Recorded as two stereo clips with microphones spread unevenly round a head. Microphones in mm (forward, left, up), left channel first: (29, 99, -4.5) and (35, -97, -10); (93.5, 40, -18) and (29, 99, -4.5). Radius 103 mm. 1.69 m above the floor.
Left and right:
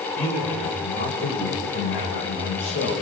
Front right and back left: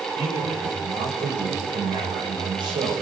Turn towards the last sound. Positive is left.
turn(degrees=125)